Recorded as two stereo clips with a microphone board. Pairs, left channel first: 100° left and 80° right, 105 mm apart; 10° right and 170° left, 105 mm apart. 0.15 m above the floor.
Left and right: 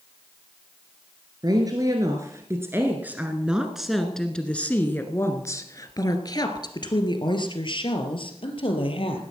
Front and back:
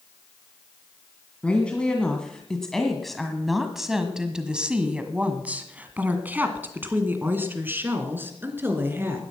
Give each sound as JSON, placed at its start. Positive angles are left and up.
{"t": 1.4, "sound": "a woman speaking", "azimuth_deg": -85, "distance_m": 2.0}